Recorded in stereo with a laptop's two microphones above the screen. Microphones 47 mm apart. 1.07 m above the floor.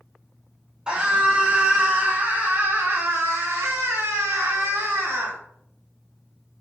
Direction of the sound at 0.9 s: 20° right (ahead or behind).